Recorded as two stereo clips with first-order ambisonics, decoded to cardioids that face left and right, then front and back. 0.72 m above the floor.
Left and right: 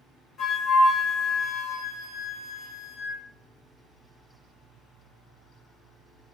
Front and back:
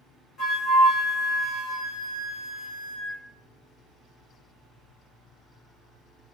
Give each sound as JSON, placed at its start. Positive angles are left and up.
{"t": 0.4, "sound": "a flute", "azimuth_deg": 35, "distance_m": 1.1}